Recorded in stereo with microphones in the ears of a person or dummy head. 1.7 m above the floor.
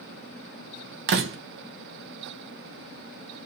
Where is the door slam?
60° right (ahead or behind), 1.1 m.